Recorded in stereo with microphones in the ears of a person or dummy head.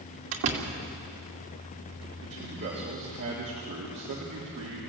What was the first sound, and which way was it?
A door slam, 75° right (ahead or behind).